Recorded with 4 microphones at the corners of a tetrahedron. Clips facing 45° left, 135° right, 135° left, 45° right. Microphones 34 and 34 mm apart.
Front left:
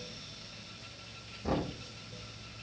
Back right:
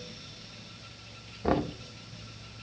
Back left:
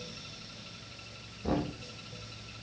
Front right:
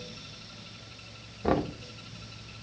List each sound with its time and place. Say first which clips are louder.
1.4 s knocking: back right 6 dB, front right 5 dB; 85° right, 0.8 m